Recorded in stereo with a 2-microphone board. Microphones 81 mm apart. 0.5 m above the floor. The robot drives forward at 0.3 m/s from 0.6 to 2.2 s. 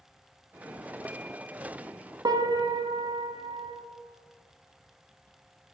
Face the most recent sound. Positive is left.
turn(degrees=-70)  # may be behind; listen again after turning